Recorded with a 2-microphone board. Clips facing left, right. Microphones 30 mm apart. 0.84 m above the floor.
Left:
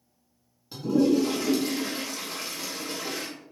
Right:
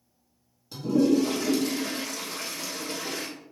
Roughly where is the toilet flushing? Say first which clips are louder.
Even; centre.